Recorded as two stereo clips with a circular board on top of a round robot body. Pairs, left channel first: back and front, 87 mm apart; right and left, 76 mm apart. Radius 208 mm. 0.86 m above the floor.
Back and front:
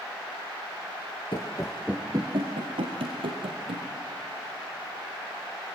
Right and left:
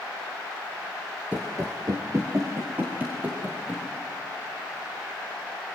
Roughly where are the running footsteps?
Behind left.